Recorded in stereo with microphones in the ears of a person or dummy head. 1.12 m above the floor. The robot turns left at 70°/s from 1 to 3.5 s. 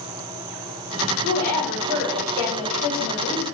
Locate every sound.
1.2 s a woman speaking: 105° right, 1.2 m; by 3.4 s 100° left, 1.2 m